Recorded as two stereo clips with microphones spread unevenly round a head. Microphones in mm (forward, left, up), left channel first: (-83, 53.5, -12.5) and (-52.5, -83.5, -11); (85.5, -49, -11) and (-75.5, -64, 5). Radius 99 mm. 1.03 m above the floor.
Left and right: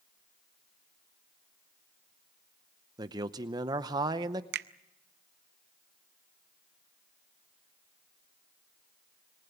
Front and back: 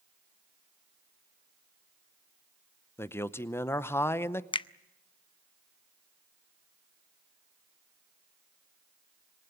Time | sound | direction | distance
3.0 | a man speaking | 40° right | 0.7 m
4.5 | a finger snap | 55° right | 0.6 m